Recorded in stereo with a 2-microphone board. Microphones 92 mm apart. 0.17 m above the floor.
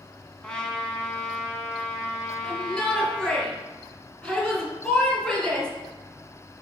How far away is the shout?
About 3 m.